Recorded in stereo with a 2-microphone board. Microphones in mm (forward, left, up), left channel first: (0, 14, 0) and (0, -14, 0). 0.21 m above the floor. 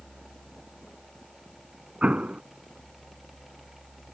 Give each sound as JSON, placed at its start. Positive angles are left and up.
{"t": 2.0, "sound": "an explosion", "side_deg": -60}